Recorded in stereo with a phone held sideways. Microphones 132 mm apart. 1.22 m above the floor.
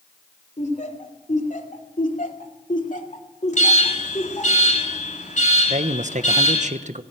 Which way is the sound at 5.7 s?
65° right (ahead or behind).